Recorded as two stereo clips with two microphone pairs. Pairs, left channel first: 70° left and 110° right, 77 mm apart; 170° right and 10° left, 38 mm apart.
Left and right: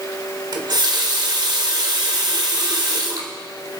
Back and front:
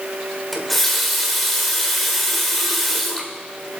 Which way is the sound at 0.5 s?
85° right.